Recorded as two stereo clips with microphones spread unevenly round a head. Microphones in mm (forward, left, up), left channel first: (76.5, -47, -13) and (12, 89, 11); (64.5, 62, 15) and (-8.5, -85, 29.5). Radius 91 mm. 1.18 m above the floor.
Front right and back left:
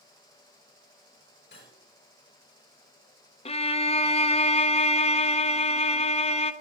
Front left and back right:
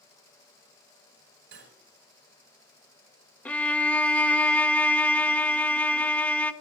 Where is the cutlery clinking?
110° right, 4.5 m.